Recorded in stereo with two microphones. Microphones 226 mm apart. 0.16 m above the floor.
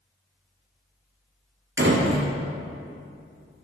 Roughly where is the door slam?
Right.